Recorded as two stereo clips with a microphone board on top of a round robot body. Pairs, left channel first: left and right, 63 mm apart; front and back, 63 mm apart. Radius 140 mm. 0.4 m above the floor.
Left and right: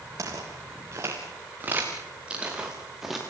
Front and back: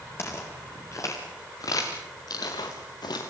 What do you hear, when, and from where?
0.2 s footsteps: 50° right, 5 m; by 3.3 s straight ahead, 4 m